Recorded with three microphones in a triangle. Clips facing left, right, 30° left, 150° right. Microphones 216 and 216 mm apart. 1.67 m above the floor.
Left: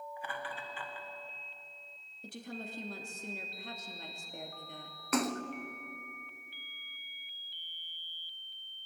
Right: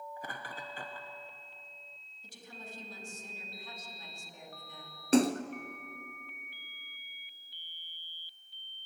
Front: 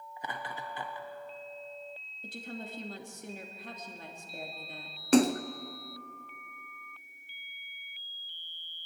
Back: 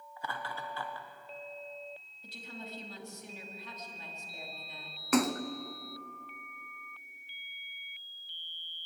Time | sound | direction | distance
0.2 | laughter | 40° right | 1.4 m
2.2 | a woman speaking | 65° left | 2.5 m
5.1 | a splash | 30° right | 0.9 m